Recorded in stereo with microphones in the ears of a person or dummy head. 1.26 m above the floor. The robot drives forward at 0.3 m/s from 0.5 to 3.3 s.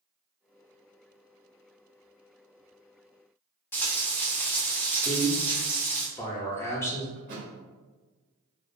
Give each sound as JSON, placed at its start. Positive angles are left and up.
{"t": 3.7, "sound": "frying", "side_deg": 10, "distance_m": 0.5}
{"t": 5.0, "sound": "a man speaking", "side_deg": 10, "distance_m": 0.6}
{"t": 7.2, "sound": "a thud", "side_deg": -35, "distance_m": 0.8}